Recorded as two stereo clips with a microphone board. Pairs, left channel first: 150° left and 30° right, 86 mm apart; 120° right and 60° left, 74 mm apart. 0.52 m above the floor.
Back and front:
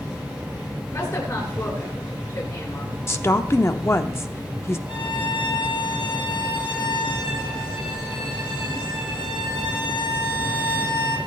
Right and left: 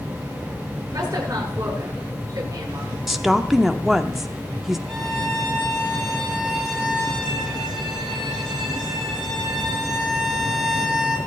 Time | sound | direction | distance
0.9 | a woman speaking | 105° left | 7.5 m
3.1 | a woman speaking | 145° left | 0.8 m
4.9 | a violin | 150° left | 3.5 m